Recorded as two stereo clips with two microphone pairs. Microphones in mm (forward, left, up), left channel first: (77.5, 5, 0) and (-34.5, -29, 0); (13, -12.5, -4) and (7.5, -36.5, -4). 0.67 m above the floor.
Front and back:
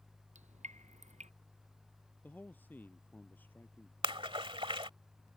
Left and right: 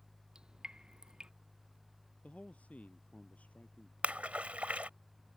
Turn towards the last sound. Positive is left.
turn(degrees=-120)